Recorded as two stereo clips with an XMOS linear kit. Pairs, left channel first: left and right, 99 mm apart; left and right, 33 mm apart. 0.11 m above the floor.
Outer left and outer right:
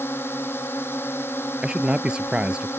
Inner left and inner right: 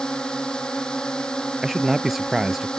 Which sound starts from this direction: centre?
A man speaking, at 1.6 s.